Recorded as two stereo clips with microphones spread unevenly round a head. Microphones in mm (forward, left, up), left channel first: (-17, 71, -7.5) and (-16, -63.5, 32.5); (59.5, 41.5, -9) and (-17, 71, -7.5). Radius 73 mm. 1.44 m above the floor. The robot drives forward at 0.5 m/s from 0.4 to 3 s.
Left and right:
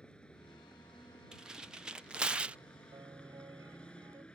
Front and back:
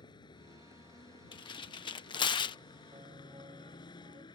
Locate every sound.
0.0 s a vehicle: 5° left
1.3 s tearing paper: straight ahead; by 2.6 s 5° right
2.9 s a piano: 155° right